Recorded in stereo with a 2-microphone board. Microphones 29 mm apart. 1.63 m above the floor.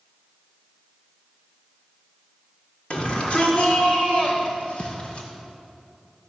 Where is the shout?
45° left (ahead or behind), 5.5 m; by 5.3 s 40° left (ahead or behind), 7.5 m.